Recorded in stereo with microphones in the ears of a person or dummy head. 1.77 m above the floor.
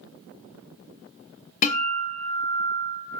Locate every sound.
1.6 s a guitar: 40° left (ahead or behind), 0.9 m